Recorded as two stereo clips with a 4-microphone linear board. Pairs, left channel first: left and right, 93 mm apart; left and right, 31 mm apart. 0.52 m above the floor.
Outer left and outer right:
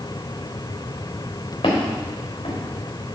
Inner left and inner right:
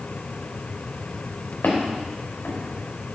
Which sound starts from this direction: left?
Footsteps, at 1.6 s.